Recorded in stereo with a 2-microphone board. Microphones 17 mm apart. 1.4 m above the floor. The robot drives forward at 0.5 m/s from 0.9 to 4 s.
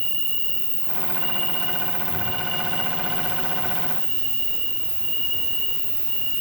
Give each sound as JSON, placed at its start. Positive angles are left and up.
{"t": 0.0, "sound": "an insect", "side_deg": 75, "distance_m": 1.5}